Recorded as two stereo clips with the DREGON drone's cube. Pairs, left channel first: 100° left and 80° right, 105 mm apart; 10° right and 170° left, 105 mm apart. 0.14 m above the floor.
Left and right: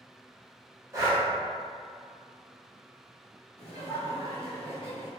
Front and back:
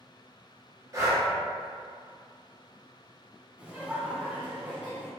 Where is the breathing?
135° right, 1.4 m.